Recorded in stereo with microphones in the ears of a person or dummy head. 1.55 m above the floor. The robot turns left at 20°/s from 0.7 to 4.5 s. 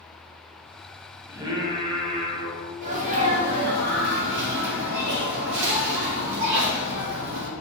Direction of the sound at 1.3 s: 20° right (ahead or behind).